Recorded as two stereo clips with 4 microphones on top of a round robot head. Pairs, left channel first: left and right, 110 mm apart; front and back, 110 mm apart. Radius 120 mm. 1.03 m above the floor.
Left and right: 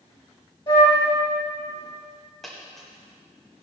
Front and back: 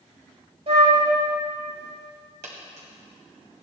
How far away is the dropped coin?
About 1.6 m.